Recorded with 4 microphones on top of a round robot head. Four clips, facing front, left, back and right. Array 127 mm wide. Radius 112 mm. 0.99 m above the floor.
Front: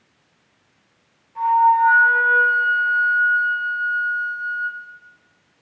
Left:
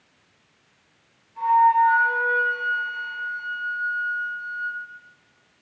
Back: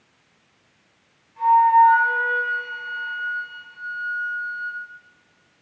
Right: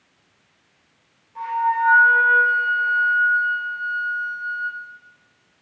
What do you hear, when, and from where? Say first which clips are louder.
1.4 s a flute: left 5 dB, back 1 dB; 40° right, 9.5 m